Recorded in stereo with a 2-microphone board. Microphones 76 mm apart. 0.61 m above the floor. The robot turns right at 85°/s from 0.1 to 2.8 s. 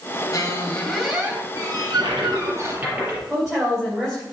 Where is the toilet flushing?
110° right, 3.5 m; by 3.2 s 20° right, 3.5 m.